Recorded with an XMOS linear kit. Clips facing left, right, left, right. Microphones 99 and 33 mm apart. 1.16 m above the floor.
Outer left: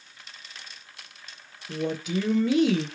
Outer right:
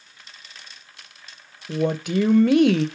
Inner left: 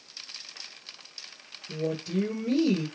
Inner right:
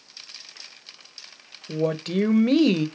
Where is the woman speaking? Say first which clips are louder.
Outer right 6 dB, inner right 6 dB; 60° right (ahead or behind), 0.5 m.